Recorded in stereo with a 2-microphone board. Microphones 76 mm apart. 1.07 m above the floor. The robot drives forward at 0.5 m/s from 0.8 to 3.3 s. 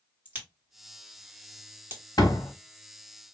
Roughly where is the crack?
Right.